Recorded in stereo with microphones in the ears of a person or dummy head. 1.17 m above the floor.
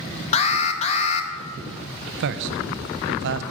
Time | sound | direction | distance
0.3 | an alarm | 35° left (ahead or behind) | 0.9 m
2.2 | a man speaking | 65° right (ahead or behind) | 0.7 m